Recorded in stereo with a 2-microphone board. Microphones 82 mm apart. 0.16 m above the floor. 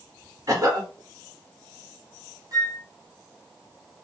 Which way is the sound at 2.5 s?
50° right (ahead or behind).